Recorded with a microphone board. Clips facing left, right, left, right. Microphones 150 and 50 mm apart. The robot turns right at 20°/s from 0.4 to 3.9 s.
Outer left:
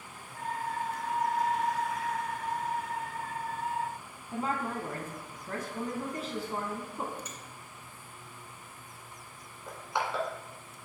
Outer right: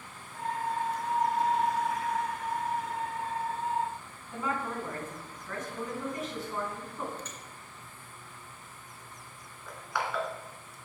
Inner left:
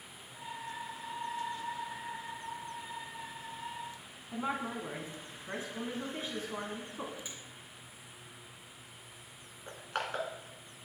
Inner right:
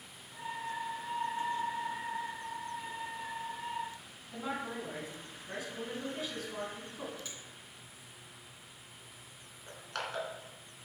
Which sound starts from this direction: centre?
A finger snap, at 7.2 s.